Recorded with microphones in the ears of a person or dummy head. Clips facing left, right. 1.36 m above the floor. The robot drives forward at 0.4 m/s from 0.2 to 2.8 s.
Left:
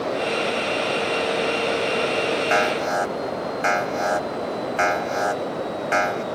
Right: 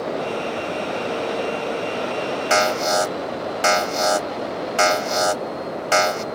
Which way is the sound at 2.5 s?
60° right (ahead or behind).